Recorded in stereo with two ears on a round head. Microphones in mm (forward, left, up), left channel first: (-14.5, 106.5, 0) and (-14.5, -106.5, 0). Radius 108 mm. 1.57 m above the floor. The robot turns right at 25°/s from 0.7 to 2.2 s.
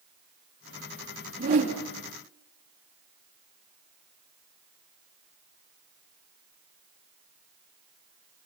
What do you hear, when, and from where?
1.4 s a whoosh: 40° right (ahead or behind), 3.5 m; by 1.8 s 25° right (ahead or behind), 3.5 m